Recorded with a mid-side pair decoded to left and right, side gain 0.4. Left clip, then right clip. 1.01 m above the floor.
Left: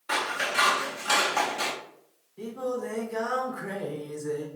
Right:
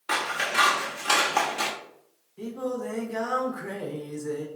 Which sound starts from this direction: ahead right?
Scissors, at 0.1 s.